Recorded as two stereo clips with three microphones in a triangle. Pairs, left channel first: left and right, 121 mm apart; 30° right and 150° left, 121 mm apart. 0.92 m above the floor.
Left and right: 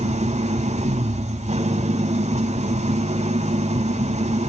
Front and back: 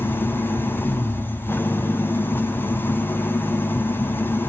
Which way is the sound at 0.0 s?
105° right.